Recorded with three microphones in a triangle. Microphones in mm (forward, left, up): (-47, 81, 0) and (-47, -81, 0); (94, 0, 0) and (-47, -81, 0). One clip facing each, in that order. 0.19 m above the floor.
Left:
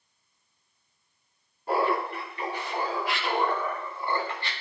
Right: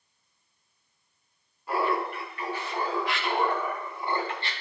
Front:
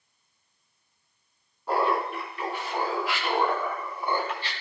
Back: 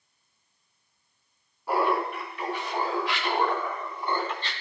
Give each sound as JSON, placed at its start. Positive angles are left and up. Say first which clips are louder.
{"t": 1.7, "sound": "laughter", "louder": "left 2 dB, even", "azimuth_deg": 125, "distance_m": 2.0}